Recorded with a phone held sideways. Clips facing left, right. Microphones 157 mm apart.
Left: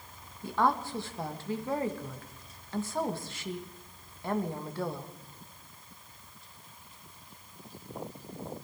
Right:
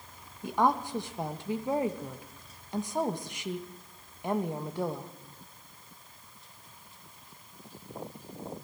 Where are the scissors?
No scissors in this recording.